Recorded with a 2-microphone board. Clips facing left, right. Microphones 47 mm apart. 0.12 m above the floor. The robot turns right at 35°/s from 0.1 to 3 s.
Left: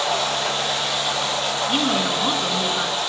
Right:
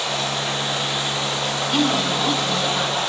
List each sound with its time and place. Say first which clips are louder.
0.0 s running water: left 2 dB; 95° left, 4 m; by 3.1 s 160° right, 4 m
1.7 s a woman speaking: right 2 dB; 15° left (ahead or behind), 1.2 m; by 3.0 s 20° left (ahead or behind), 1.2 m